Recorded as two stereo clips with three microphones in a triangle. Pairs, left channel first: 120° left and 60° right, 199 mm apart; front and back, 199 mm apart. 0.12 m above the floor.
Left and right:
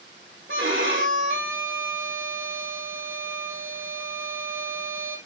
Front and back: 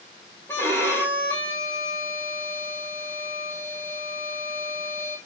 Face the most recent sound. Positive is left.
turn(degrees=-80)